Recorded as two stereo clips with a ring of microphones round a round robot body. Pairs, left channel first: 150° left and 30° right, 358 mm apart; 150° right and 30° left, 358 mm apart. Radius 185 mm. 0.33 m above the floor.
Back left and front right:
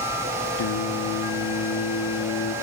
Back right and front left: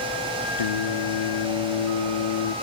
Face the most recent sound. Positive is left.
turn(degrees=-160)